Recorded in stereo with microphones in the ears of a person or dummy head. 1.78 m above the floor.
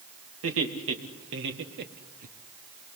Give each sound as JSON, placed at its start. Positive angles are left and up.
{"t": 0.4, "sound": "laughter", "side_deg": -80, "distance_m": 3.0}